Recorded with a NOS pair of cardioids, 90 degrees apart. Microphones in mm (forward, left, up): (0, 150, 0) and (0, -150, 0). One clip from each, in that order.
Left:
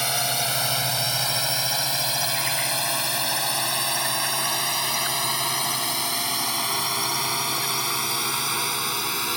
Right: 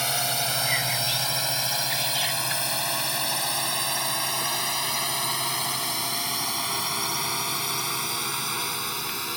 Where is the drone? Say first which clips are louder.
Left 2 dB; 35° left; by 9.4 s 60° left.